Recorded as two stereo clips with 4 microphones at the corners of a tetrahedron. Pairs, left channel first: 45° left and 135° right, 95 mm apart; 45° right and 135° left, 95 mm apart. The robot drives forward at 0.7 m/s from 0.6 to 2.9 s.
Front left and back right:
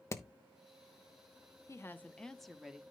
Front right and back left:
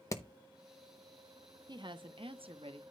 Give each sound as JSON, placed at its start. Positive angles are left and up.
{"t": 0.1, "sound": "hammering", "azimuth_deg": 0, "distance_m": 1.0}
{"t": 1.7, "sound": "a woman speaking", "azimuth_deg": 100, "distance_m": 0.8}